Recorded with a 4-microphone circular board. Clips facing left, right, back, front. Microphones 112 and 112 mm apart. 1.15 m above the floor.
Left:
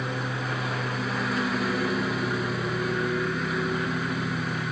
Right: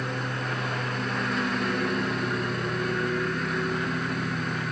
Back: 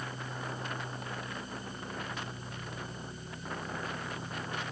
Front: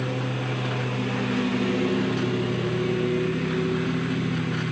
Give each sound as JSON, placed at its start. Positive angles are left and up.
{"t": 0.0, "sound": "a lawn mower", "azimuth_deg": 0}